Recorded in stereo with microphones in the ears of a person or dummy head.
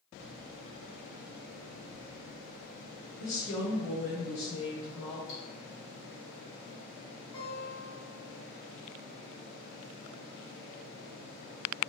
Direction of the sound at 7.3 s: 30° left (ahead or behind).